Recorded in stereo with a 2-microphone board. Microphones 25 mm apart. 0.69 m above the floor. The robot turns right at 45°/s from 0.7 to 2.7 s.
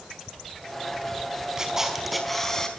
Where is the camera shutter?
25° right, 5 m; by 2.7 s 25° left, 5 m.